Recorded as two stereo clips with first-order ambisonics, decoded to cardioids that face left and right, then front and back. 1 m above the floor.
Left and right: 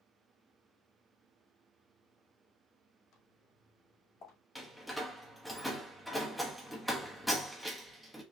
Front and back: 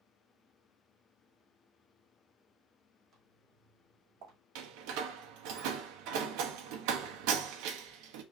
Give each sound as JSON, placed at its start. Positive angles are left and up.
{"t": 3.1, "sound": "footsteps", "azimuth_deg": 115, "distance_m": 3.0}
{"t": 4.5, "sound": "a door slam", "azimuth_deg": 180, "distance_m": 1.1}